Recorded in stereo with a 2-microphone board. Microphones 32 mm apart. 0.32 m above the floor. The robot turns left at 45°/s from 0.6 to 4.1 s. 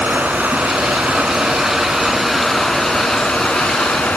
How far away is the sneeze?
I don't hear a sneeze.